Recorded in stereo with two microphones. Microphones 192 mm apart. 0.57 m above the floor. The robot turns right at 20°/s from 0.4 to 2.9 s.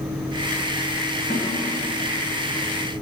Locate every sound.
1.3 s a snare drum: 55° left (ahead or behind), 1.8 m